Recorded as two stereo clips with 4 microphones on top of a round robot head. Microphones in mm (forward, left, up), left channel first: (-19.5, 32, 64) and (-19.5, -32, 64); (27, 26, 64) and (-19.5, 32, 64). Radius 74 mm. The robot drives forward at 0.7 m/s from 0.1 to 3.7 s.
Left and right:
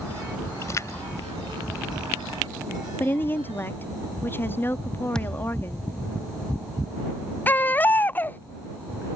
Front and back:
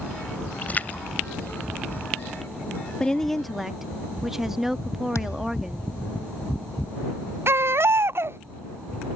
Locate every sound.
0.6 s a splash: 45° left; by 2.8 s 65° left
3.0 s a woman speaking: 55° left; by 5.9 s 95° left
5.2 s a thud: 10° left
7.5 s a baby crying: 150° left